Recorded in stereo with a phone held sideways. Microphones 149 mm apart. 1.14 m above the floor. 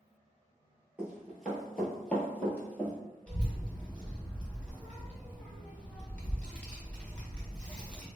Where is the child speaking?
5° left (ahead or behind), 1.2 m.